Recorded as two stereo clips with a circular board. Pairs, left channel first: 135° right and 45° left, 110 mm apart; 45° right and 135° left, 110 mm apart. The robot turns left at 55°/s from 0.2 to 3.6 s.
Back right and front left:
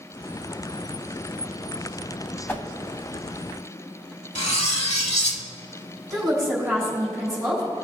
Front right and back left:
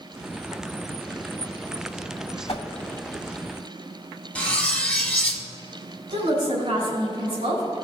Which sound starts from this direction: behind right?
Cutlery clinking, at 4.3 s.